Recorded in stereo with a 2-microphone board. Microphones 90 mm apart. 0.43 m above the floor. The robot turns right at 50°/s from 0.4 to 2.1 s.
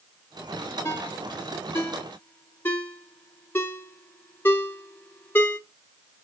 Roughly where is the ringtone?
Left.